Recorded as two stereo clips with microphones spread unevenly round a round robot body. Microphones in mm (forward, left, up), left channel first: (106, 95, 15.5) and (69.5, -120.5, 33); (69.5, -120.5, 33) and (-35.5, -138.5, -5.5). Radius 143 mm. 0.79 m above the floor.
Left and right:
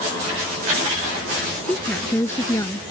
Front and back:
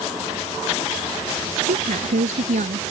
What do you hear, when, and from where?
1.6 s a woman speaking: 165° left; by 2.8 s 160° left